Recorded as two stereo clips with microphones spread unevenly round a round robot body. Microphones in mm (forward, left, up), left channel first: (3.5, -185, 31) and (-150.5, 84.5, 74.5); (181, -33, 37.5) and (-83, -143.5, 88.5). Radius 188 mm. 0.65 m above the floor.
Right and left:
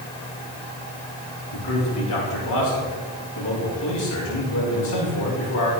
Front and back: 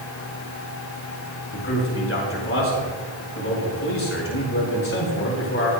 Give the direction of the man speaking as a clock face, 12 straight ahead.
1 o'clock.